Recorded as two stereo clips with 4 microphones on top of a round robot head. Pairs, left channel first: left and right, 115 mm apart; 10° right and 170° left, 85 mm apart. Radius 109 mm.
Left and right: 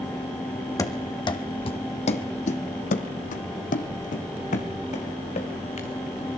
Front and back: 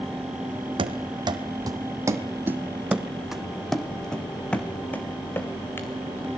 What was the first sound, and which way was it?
Running footsteps, 150° left.